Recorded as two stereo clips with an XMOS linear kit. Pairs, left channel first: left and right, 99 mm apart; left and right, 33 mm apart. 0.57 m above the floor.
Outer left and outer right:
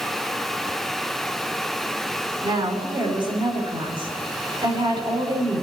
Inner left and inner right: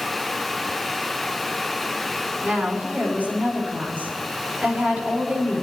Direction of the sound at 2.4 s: 60° right (ahead or behind).